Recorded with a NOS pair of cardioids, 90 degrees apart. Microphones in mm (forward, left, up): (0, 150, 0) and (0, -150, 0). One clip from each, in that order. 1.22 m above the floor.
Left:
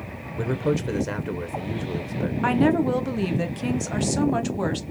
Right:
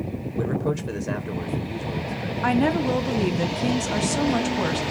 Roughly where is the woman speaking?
Ahead.